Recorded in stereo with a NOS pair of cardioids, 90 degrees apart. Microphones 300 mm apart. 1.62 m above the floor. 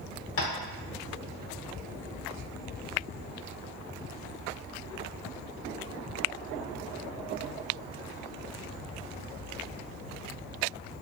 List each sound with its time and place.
0.4 s tapping: 50° left, 0.8 m